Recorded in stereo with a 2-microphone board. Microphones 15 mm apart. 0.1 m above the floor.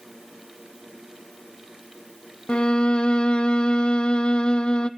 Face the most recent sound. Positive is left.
turn(degrees=75)  # may be behind; listen again after turning